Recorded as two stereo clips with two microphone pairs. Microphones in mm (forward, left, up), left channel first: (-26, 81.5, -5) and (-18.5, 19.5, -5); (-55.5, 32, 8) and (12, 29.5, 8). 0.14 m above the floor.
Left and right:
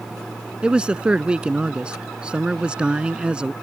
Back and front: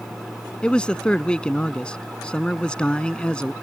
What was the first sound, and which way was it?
A man speaking, 135° right.